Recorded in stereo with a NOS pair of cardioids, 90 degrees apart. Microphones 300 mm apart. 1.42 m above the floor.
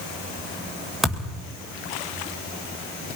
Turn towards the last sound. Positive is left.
turn(degrees=0)